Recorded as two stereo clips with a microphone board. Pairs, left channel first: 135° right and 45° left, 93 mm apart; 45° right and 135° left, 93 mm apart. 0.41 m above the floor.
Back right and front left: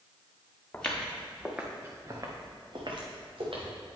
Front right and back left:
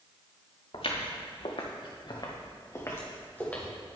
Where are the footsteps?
55° right, 2.5 m; by 3.7 s 30° left, 3 m.